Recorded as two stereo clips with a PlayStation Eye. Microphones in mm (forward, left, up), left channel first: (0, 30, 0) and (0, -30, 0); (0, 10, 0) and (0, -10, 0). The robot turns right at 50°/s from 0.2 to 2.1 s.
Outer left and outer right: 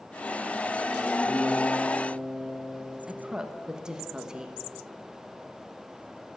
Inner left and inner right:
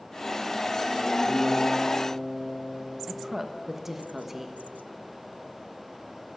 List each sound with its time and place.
1.3 s a guitar: 5° right, 6 m; by 3.0 s 40° left, 6 m
3.1 s a woman speaking: 15° right (ahead or behind), 1.0 m